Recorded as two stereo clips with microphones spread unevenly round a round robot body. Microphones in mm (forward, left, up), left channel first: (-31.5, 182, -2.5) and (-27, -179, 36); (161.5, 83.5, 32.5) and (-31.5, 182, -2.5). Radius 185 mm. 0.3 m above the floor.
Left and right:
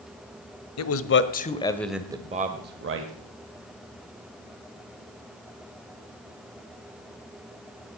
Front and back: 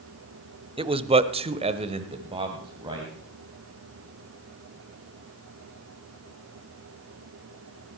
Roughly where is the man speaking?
Left.